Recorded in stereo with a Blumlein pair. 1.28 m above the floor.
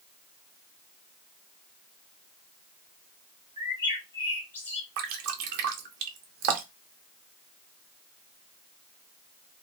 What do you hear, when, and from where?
3.6 s a bird: 70° left, 0.9 m
5.0 s dripping: 45° right, 0.6 m